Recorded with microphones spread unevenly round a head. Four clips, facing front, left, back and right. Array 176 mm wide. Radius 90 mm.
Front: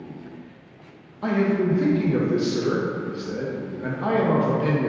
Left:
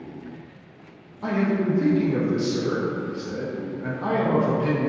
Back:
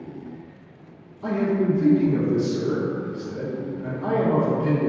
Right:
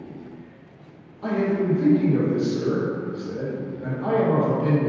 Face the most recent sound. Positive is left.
turn(degrees=15)